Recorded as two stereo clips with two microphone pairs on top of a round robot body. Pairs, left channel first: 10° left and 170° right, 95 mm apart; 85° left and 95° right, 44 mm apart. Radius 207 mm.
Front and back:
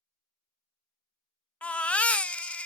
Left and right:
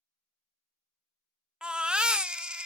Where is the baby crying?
60° right, 0.8 m.